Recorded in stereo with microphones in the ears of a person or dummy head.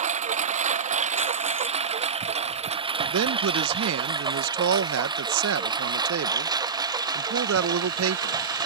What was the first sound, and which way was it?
A lawn mower, 30° right (ahead or behind).